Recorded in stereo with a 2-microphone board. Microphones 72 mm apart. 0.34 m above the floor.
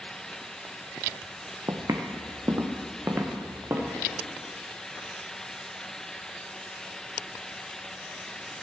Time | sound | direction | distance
1.7 | footsteps | 50° right (ahead or behind) | 1.1 m